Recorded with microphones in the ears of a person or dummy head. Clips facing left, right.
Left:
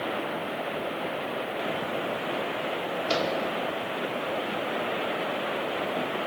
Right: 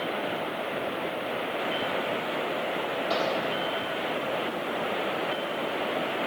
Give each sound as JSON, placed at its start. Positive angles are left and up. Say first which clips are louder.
{"t": 3.1, "sound": "a microwave", "louder": "left 1 dB", "side_deg": 40, "distance_m": 3.5}